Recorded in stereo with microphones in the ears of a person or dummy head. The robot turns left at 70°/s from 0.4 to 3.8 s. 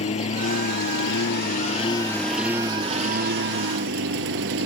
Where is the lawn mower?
140° left; by 4.7 s 100° right.